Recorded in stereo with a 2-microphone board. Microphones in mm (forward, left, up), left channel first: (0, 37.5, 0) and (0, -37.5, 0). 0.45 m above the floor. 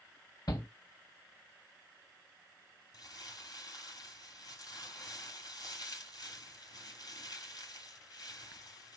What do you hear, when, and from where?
0.5 s a shout: 55° left (ahead or behind), 3 m
2.9 s crumpling: 60° left (ahead or behind), 5.5 m